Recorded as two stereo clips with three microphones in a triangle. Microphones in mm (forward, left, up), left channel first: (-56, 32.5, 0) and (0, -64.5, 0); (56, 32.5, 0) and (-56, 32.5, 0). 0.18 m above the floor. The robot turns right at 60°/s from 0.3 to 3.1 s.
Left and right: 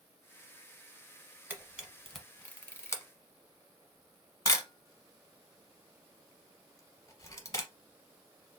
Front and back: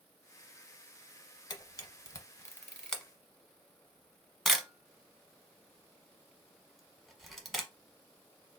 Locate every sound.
1.5 s a camera shutter: 5° right, 0.9 m; by 7.7 s 90° left, 0.9 m